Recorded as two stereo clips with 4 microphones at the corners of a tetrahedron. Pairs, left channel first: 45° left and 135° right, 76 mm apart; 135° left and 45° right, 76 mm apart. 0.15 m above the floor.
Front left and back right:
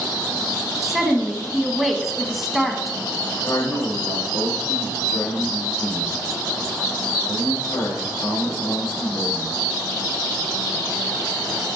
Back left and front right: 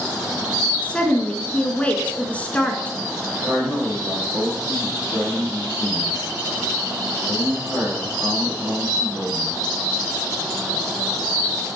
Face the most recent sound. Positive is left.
turn(degrees=-5)